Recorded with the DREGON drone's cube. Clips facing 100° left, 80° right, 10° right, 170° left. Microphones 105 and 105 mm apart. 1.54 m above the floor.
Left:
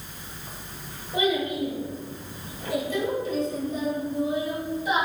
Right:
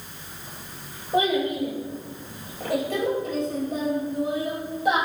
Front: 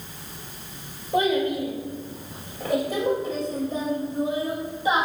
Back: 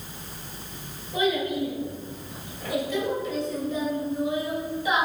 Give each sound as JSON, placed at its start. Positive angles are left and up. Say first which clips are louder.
{"t": 1.1, "sound": "a child speaking", "louder": "right 3 dB, front 3 dB", "azimuth_deg": -40, "distance_m": 4.5}